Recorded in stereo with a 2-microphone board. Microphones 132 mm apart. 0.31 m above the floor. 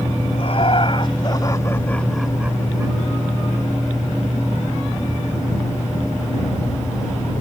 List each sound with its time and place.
0.3 s laughter: 55° left (ahead or behind); by 3.0 s 30° right (ahead or behind)